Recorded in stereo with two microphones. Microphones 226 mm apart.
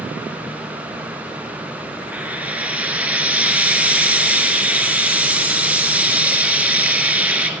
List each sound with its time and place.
2.1 s frying: 5° right (ahead or behind), 1.8 m